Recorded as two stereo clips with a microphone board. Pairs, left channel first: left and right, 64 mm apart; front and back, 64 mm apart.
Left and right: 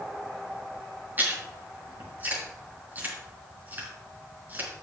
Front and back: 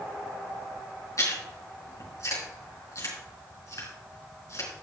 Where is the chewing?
30° right, 4 m.